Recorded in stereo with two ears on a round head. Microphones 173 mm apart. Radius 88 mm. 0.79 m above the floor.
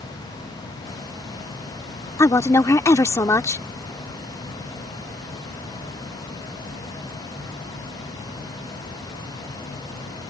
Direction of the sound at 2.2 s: 15° left (ahead or behind).